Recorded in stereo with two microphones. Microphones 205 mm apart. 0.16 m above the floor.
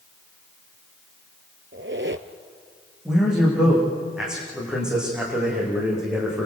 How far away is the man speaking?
About 9.5 m.